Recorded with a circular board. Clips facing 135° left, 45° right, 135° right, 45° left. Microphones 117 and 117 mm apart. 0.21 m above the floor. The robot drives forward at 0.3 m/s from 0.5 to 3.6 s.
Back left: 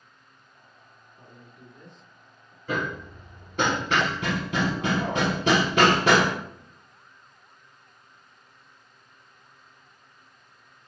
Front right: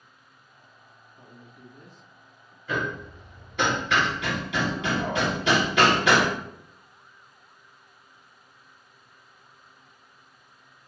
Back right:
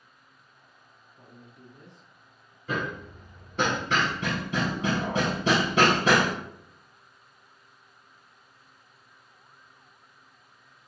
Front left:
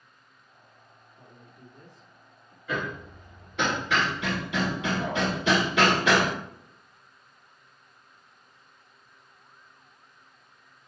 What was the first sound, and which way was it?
A man speaking, 100° right.